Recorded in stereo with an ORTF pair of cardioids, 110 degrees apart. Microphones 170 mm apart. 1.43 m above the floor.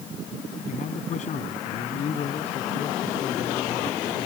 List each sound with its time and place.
0.7 s a man speaking: 50° left; by 4.3 s 30° left